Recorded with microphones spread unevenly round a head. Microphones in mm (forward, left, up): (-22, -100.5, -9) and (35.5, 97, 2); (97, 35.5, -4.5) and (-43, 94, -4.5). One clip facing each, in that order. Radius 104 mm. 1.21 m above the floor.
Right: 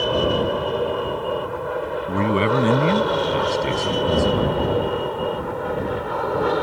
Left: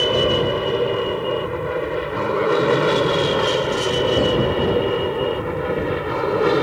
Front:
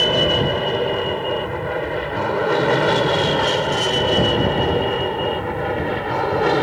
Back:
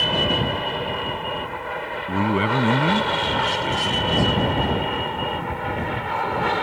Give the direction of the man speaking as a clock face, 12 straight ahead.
5 o'clock.